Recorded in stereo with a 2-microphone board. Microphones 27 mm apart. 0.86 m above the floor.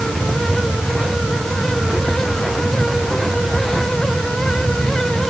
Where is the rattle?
I don't hear a rattle.